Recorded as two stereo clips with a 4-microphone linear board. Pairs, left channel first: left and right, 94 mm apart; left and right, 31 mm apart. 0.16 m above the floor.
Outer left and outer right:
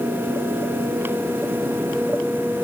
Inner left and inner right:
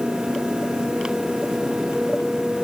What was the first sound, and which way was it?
Only background noise.